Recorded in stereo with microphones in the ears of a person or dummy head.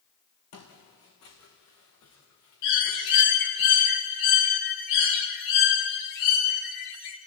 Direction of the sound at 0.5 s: 75° left (ahead or behind).